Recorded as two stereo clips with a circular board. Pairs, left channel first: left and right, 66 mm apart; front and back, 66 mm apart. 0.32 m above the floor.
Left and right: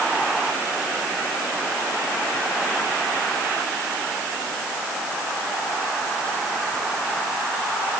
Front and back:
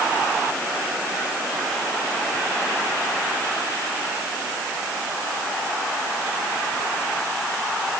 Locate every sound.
Only background noise.